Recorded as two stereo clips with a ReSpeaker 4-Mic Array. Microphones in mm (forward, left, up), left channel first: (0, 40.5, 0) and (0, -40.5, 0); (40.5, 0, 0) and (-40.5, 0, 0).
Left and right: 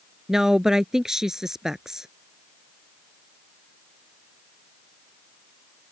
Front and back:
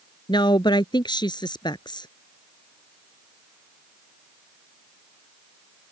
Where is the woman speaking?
5° right.